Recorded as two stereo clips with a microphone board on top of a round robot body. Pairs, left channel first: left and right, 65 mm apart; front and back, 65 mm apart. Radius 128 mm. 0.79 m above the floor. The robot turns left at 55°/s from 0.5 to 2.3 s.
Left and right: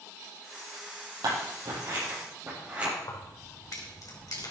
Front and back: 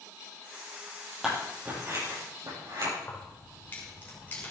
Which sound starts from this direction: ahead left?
Keys jangling, at 3.0 s.